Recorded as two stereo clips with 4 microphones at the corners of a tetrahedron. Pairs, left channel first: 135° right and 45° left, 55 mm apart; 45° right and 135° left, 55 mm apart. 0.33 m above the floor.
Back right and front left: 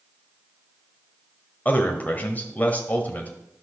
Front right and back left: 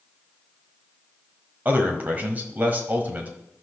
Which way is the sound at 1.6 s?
Straight behind.